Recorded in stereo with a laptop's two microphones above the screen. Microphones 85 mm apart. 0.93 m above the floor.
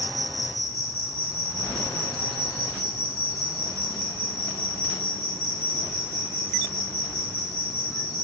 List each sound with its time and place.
0.0 s an insect: 50° left (ahead or behind), 1.1 m